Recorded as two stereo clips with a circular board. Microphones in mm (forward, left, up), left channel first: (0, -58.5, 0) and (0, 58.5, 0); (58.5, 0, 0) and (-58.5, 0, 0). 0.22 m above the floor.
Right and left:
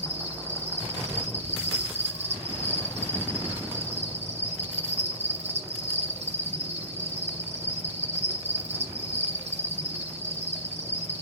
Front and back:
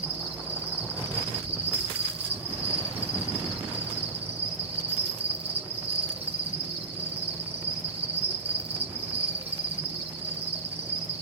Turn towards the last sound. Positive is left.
turn(degrees=105)